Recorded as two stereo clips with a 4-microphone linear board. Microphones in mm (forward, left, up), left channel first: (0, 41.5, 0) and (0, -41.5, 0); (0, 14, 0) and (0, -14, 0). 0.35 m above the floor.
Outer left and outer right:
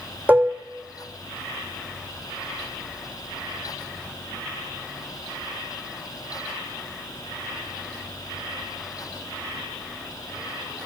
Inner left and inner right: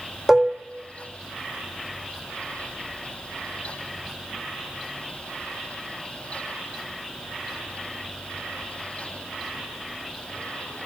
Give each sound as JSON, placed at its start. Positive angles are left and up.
{"t": 0.3, "sound": "dishes clattering", "side_deg": -20, "distance_m": 0.8}